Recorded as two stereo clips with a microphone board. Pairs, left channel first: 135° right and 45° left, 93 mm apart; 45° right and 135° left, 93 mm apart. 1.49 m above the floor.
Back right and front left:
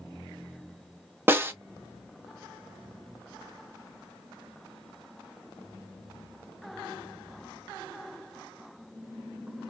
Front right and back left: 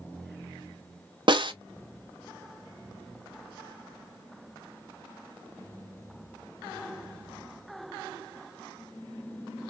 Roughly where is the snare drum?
Left.